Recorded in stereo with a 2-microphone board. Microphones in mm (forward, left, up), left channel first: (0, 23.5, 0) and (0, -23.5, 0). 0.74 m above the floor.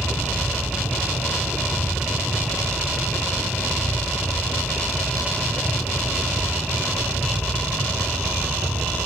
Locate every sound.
0.0 s a helicopter: 60° right (ahead or behind); by 9.1 s 65° right (ahead or behind)